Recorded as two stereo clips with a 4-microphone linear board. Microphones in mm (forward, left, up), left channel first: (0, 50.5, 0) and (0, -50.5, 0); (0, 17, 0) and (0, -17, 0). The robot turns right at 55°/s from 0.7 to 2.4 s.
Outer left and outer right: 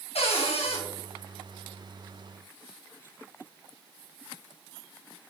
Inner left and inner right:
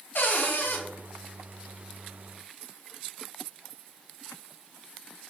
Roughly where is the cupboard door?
Left.